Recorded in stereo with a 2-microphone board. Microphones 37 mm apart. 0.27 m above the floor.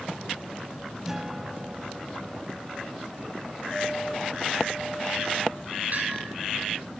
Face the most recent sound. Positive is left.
turn(degrees=-45)  # may be behind; listen again after turning